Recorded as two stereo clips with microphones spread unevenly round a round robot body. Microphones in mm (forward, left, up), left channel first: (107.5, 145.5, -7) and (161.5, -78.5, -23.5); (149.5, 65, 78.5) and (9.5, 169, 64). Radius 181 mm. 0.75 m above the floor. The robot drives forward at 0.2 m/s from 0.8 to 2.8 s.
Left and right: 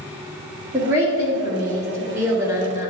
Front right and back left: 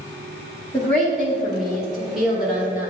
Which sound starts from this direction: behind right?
A woman speaking, at 0.7 s.